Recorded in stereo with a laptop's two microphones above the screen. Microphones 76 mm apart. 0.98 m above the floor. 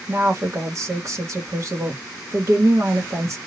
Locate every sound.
0.1 s a woman speaking: 45° right (ahead or behind), 1.0 m